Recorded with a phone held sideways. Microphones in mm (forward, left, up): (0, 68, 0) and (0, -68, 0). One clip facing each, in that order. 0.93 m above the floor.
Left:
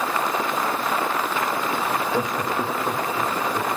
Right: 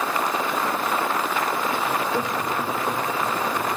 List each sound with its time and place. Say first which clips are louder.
1.9 s laughter: left 1 dB; 10° right (ahead or behind), 0.6 m; by 3.7 s 35° left (ahead or behind), 2.5 m